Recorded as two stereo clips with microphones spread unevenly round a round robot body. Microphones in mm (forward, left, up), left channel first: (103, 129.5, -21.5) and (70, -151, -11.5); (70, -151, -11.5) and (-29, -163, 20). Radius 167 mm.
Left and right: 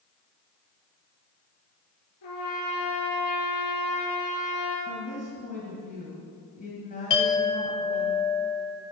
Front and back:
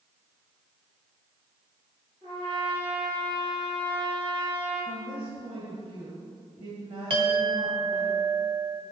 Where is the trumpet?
120° left, 3.5 m.